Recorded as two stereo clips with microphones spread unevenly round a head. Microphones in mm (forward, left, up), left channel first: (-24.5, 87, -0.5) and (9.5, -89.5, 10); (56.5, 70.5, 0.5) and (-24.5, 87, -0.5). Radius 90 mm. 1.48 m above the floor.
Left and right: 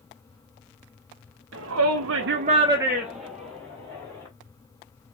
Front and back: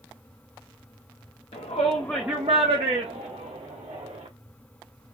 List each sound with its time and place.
1.5 s a shout: 50° right, 0.8 m; by 4.3 s straight behind, 2 m